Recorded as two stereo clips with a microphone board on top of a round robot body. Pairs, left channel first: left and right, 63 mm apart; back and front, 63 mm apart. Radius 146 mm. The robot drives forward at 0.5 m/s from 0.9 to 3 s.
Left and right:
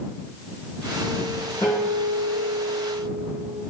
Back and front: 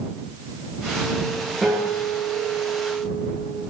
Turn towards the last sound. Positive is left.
turn(degrees=160)